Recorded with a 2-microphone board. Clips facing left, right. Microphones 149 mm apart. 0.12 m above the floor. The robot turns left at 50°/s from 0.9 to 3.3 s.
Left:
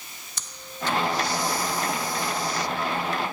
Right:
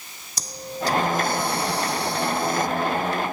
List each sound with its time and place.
0.4 s breathing: 40° right; by 2.7 s 130° right